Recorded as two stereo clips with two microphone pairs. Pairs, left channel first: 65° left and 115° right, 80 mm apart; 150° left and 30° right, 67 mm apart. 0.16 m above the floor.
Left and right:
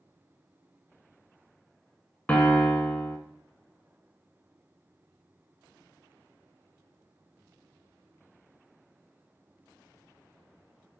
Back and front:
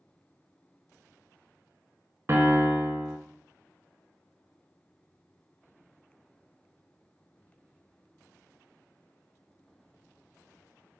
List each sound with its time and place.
2.3 s a piano: 5° right, 0.7 m